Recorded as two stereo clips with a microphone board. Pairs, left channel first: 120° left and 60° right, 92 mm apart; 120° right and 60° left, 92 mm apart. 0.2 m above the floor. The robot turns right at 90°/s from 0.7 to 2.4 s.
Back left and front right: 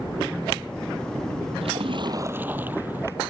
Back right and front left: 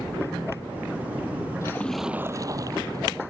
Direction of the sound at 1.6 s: 60° right.